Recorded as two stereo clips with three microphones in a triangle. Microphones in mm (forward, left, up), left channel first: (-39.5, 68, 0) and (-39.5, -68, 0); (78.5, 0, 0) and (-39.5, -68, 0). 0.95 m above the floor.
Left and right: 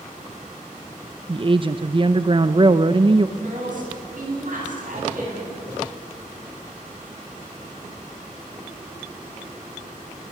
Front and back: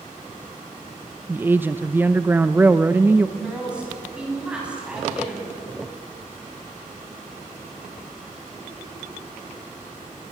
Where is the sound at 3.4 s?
65° right, 8.5 m.